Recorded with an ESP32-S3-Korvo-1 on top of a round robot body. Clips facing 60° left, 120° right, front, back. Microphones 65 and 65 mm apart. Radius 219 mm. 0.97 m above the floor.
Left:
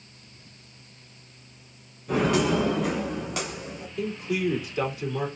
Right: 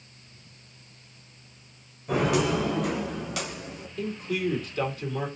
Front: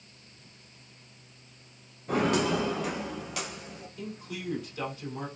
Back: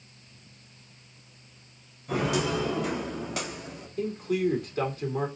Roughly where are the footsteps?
Ahead right.